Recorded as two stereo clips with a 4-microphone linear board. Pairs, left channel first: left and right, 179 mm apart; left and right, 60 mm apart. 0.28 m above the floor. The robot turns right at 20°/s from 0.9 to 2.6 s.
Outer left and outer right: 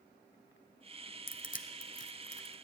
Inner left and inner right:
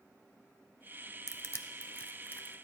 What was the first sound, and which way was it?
Crushing, 50° left (ahead or behind).